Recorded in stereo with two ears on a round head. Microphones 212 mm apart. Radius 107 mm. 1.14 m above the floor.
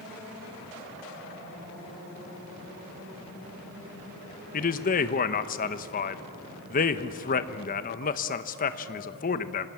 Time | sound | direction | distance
4.5 | a man speaking | 35° left (ahead or behind) | 1.0 m